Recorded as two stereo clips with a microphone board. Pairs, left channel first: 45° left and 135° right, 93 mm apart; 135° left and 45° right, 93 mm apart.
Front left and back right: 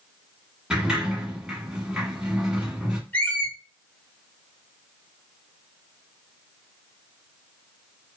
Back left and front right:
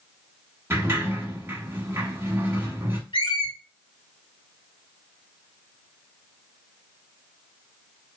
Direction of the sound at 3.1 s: 110° left.